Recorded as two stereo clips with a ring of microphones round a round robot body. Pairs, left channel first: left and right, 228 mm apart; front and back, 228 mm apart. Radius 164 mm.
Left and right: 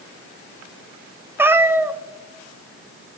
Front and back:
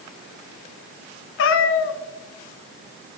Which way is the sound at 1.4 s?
10° right.